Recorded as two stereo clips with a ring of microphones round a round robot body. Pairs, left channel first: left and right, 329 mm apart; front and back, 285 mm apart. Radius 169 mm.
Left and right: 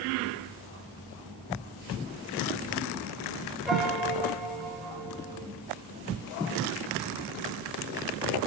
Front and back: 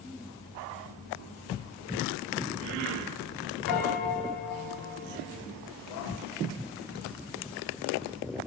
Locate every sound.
3.7 s a piano: straight ahead, 5 m